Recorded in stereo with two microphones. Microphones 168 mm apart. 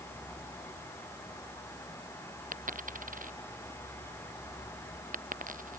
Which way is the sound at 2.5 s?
50° right (ahead or behind).